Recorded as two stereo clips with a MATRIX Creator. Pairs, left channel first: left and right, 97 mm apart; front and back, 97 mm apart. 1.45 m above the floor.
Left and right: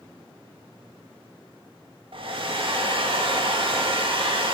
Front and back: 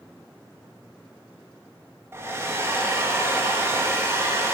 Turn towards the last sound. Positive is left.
turn(degrees=-115)